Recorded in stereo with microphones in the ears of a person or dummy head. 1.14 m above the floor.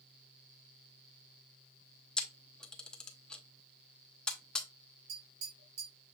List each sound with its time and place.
2.2 s a camera shutter: 5° left (ahead or behind), 0.6 m
5.1 s tapping: 55° right (ahead or behind), 3.5 m